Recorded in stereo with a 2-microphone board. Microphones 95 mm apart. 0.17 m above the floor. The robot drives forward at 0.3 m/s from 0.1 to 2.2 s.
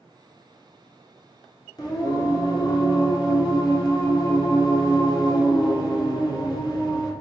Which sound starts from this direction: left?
Singing, at 1.8 s.